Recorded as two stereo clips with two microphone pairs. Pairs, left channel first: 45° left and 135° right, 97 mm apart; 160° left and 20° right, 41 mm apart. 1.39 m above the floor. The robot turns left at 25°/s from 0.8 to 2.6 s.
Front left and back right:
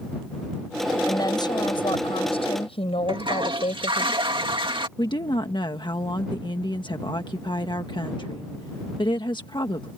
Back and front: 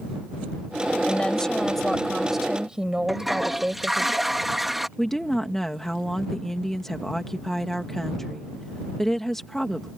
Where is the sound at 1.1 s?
95° left; by 4.1 s 55° left.